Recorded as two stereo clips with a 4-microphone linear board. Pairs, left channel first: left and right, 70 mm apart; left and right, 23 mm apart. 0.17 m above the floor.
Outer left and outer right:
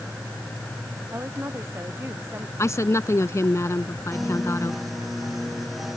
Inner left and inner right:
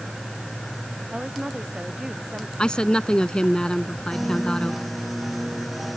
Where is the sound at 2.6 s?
45° left (ahead or behind).